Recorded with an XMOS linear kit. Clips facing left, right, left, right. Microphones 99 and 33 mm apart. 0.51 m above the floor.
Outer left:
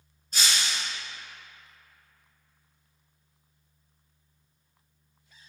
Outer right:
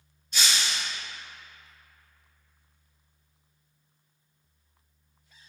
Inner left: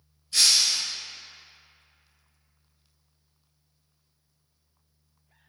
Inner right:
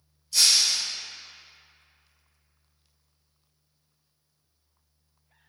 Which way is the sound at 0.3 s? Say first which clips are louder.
Even, even; 40° left (ahead or behind).